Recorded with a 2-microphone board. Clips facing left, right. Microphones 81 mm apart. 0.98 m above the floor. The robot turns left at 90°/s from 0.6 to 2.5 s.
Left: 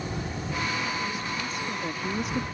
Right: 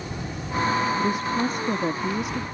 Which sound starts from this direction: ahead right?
A woman speaking, at 1.0 s.